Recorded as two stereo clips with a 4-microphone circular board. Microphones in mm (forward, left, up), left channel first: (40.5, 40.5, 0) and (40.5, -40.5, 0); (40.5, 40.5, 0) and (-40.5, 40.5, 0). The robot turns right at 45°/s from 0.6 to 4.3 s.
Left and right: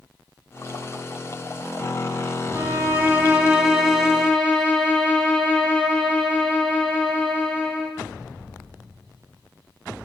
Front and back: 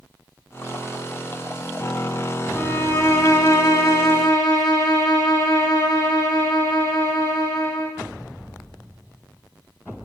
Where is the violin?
60° right, 1.0 m; by 8.0 s 20° left, 1.0 m.